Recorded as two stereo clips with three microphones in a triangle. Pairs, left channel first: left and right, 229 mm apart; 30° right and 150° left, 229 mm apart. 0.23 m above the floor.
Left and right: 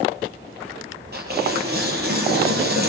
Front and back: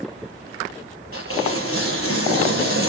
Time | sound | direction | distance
1.1 | tearing paper | 45° right | 6.5 m